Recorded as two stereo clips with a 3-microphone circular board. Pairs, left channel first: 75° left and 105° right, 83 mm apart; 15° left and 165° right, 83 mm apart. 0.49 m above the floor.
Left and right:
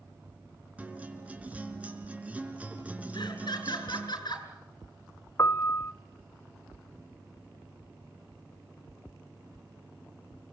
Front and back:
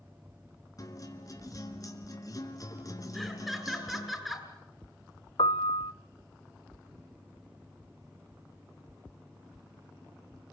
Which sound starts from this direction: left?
Laughter, at 3.1 s.